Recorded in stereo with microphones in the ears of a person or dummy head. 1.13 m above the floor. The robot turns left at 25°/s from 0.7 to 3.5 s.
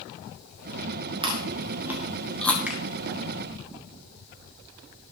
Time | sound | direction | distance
1.2 | chewing | 25° right (ahead or behind) | 1.6 m
2.7 | a finger snap | 5° right (ahead or behind) | 2 m